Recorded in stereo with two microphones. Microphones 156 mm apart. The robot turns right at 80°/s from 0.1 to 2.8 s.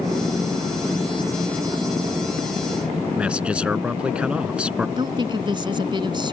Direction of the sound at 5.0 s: 30° right (ahead or behind).